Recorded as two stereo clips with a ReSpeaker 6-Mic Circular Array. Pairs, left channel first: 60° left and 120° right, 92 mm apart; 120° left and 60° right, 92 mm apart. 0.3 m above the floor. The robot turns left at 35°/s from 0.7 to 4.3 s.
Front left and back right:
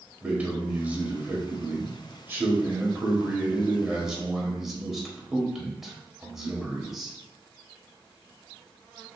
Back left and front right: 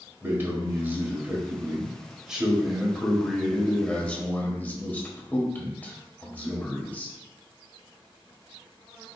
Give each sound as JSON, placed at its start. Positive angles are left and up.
{"t": 0.2, "sound": "a man speaking", "azimuth_deg": -75, "distance_m": 1.2}